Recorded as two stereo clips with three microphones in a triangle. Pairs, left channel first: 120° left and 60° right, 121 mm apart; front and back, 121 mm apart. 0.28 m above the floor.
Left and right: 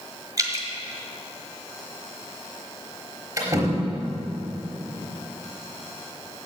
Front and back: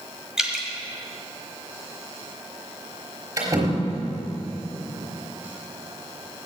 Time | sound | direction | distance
0.4 | dripping | 100° right | 1.4 m
3.4 | a door slam | 120° right | 3.5 m